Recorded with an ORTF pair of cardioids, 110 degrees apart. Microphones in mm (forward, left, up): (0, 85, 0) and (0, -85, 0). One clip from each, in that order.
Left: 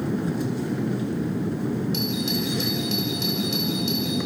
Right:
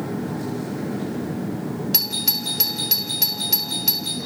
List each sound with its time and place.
0.0 s a machine running: 60° left, 4 m
1.9 s a doorbell: 50° right, 4.5 m